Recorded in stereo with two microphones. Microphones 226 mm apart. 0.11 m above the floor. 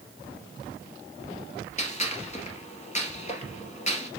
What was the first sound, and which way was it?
A gunshot, 30° left (ahead or behind).